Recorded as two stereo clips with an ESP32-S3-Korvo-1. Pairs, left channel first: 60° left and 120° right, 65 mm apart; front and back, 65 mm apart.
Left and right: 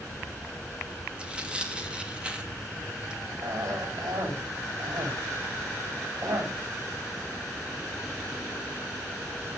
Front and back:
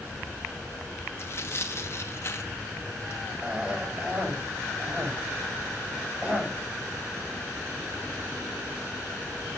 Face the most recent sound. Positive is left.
turn(degrees=-105)